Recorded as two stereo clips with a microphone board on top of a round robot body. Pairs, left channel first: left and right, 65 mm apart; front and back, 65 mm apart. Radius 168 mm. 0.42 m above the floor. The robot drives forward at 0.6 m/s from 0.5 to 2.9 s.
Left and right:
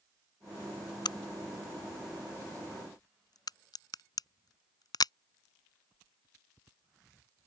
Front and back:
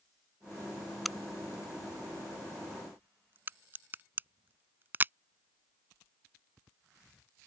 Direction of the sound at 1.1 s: 90° left.